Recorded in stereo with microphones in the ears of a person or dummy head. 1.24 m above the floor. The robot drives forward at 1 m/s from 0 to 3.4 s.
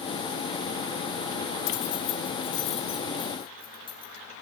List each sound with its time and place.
1.7 s keys jangling: 65° left (ahead or behind), 1.1 m; by 4.2 s 25° left (ahead or behind), 2.5 m